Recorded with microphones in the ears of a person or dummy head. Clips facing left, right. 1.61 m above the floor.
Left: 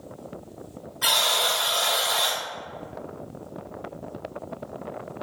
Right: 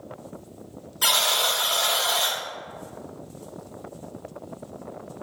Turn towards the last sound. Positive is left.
turn(degrees=-50)  # may be behind; listen again after turning